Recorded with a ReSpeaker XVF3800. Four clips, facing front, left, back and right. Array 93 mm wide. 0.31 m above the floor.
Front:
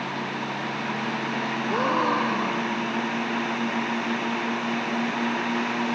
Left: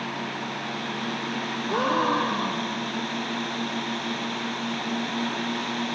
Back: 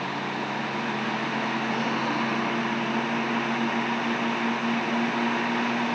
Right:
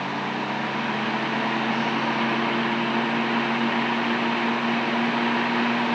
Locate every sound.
1.7 s a gasp: 50° left, 3.5 m